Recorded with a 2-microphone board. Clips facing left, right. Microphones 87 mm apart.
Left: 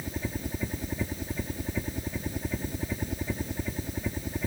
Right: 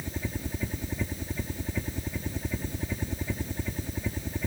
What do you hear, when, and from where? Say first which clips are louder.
0.0 s a helicopter: left 1 dB; 10° left (ahead or behind)